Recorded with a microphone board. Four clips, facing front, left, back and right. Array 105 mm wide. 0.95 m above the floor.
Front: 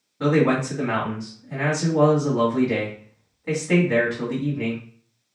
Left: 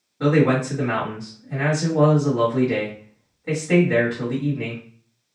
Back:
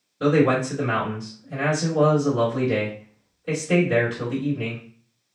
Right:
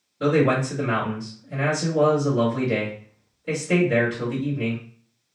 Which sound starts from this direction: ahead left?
A man speaking, at 0.2 s.